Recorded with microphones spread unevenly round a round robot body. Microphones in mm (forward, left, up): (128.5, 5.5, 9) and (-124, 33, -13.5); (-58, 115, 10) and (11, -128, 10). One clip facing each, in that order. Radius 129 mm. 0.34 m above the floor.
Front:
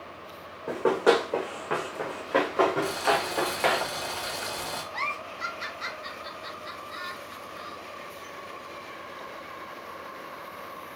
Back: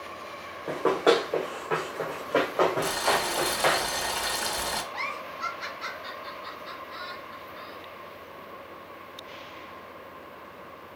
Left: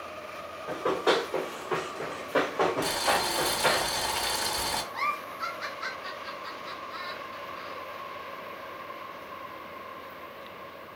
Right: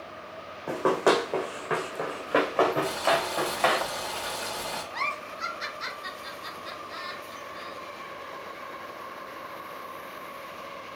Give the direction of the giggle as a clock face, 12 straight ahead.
2 o'clock.